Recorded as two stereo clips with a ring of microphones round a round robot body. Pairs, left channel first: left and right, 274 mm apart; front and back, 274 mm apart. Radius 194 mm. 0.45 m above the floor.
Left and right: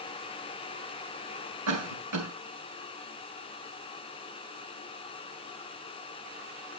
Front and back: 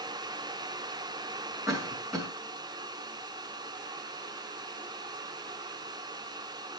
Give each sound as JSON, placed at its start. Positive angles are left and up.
{"t": 1.7, "sound": "a cough", "azimuth_deg": -90, "distance_m": 2.5}